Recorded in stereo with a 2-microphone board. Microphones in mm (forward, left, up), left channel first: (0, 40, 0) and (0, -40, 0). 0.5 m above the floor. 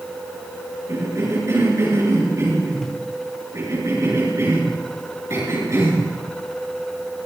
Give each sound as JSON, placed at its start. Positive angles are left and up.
{"t": 0.9, "sound": "a cough", "side_deg": -40, "distance_m": 9.0}